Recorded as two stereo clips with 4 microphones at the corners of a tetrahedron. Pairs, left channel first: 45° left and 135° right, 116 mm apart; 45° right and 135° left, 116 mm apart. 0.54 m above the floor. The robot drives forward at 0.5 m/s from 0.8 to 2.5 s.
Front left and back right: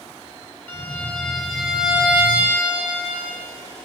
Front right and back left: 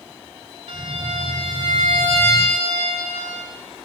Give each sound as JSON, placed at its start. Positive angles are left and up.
{"t": 0.7, "sound": "a violin", "azimuth_deg": 115, "distance_m": 0.9}